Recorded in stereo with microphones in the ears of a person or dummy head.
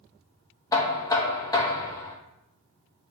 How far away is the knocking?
About 0.7 m.